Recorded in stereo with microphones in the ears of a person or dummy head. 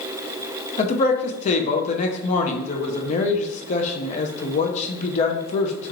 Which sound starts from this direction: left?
A man speaking, at 0.8 s.